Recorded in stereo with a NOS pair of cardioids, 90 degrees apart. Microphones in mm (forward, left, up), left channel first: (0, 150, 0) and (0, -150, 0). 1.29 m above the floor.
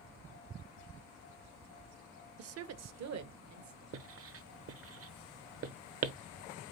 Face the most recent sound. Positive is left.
turn(degrees=-45)